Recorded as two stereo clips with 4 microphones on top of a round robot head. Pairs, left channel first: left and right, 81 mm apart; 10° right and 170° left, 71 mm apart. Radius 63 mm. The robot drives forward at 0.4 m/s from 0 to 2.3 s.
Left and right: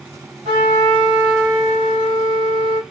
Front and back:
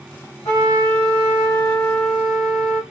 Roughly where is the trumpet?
Ahead right.